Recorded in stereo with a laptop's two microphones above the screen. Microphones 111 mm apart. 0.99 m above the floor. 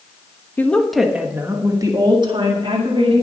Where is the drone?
No drone in this recording.